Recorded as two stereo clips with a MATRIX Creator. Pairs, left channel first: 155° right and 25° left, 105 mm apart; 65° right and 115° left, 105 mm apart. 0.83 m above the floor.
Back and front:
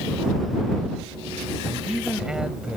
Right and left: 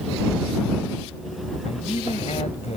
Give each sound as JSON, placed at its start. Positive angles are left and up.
{"t": 1.6, "sound": "a man speaking", "azimuth_deg": -60}